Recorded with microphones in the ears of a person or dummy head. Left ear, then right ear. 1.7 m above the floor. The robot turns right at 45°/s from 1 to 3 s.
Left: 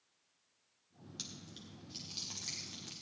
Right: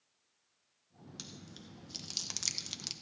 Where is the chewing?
15° right (ahead or behind), 0.9 m; by 2.9 s 90° right, 0.9 m.